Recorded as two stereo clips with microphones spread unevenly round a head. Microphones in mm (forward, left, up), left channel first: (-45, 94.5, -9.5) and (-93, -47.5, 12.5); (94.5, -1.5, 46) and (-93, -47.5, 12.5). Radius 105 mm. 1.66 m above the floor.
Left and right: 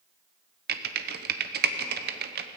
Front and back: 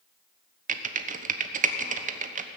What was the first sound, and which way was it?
Typing on a keyboard, 115° right.